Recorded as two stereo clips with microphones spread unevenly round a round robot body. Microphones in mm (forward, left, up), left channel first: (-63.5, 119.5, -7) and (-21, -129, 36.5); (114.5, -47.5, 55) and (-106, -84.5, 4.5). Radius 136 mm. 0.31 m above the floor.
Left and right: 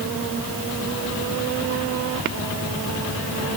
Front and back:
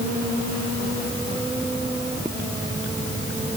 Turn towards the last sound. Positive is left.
No sound to turn to.